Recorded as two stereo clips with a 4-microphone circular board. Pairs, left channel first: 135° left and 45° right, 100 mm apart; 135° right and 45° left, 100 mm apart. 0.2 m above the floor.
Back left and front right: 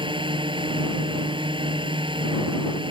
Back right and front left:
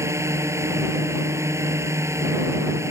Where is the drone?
15° right.